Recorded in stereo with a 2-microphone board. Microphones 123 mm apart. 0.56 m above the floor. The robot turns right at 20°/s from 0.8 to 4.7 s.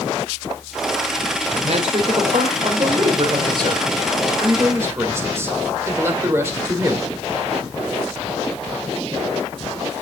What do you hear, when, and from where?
1.5 s a man speaking: 90° right, 2.0 m; by 7.1 s 25° right, 2.0 m